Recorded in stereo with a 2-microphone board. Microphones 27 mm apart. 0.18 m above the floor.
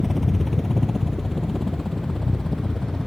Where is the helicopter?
Centre (ahead or behind); by 3.1 s 15° left (ahead or behind).